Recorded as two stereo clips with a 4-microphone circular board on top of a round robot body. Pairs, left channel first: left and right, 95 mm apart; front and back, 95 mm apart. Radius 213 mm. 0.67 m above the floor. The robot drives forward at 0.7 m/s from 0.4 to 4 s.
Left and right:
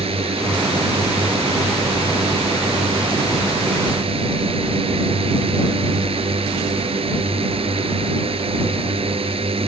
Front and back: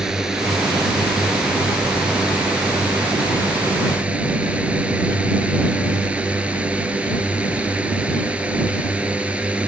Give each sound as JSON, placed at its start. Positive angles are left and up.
{"t": 0.0, "sound": "a drone", "azimuth_deg": -95}